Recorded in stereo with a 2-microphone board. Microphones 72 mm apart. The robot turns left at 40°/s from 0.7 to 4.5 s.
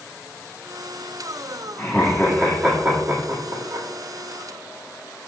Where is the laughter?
10° left (ahead or behind), 1.7 m; by 3.9 s 65° right (ahead or behind), 1.7 m.